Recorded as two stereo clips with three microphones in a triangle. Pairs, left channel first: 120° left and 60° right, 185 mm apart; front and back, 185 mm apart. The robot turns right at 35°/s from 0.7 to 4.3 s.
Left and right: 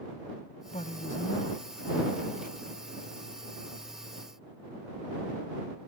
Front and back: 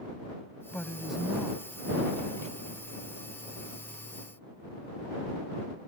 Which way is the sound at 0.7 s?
75° left.